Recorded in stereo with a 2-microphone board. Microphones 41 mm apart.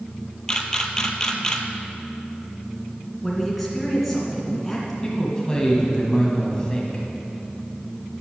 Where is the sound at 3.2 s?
5° left (ahead or behind), 2.5 m.